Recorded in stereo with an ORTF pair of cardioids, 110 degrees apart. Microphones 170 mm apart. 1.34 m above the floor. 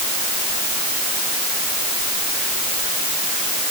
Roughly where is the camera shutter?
I don't hear a camera shutter.